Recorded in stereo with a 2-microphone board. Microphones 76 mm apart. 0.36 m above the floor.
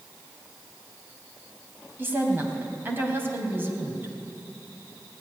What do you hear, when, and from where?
2.0 s a woman speaking: 25° right (ahead or behind), 2 m